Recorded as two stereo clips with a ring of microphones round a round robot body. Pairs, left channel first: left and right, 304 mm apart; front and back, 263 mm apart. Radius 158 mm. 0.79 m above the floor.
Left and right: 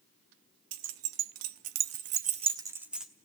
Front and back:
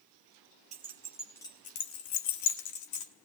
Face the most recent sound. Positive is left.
turn(degrees=0)